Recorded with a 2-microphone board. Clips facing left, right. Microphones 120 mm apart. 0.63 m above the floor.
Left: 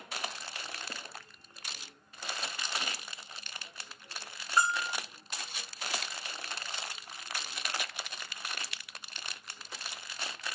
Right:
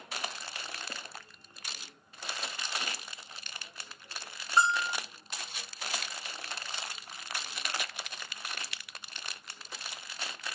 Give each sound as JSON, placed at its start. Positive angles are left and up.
{"t": 4.6, "sound": "a bell", "side_deg": -25, "distance_m": 0.6}